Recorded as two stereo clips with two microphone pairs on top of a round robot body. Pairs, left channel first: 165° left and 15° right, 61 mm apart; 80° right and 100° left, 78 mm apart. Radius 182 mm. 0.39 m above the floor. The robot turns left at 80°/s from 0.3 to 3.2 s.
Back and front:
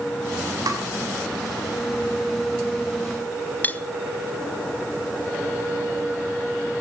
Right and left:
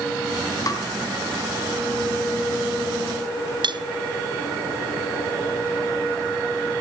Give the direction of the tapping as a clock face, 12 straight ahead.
1 o'clock.